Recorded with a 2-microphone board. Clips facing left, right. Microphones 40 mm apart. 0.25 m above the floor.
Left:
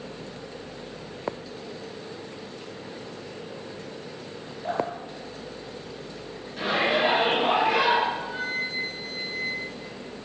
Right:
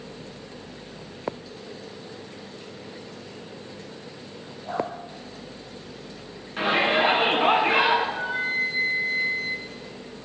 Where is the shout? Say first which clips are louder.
Right 2 dB; 45° right (ahead or behind), 3 m.